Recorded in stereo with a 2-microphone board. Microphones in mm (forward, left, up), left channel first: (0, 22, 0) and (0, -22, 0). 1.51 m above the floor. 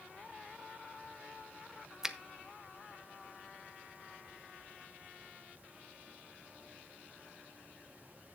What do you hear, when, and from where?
2.0 s a finger snap: 10° right (ahead or behind), 0.6 m